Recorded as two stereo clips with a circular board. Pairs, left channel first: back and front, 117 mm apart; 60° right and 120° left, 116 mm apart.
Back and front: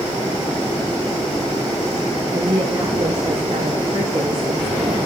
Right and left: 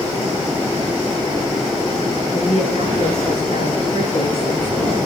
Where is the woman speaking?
30° right, 9 m; by 5.1 s 25° right, 12.5 m.